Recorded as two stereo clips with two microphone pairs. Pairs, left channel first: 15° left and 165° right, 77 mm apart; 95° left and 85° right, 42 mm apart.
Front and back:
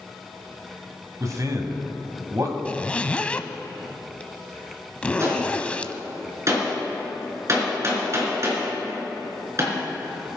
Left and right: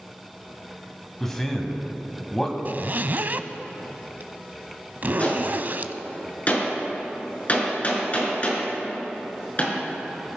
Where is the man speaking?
170° left, 2 m.